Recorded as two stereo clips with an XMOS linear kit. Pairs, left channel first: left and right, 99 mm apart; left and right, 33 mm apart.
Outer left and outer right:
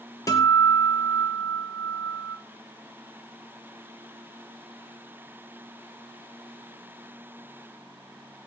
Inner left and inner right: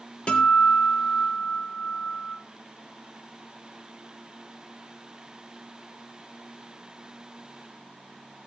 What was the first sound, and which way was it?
A guitar, 35° left (ahead or behind).